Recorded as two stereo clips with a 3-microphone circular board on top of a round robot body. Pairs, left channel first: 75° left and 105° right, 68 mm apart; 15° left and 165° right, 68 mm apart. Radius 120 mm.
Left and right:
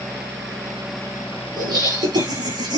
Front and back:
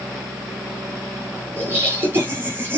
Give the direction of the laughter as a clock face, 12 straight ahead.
3 o'clock.